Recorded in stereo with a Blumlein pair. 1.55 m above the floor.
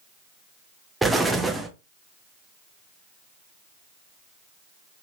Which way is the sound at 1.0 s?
10° right.